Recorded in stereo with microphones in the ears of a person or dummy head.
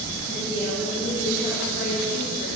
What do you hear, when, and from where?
0.2 s a woman speaking: 30° left (ahead or behind), 9 m; by 2.5 s 35° left (ahead or behind), 10.5 m